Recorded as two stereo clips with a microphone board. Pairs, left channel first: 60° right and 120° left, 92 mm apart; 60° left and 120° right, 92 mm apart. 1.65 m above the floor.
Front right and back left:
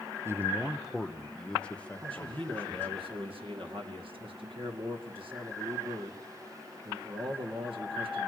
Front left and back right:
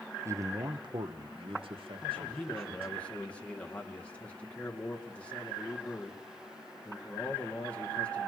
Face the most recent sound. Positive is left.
turn(degrees=135)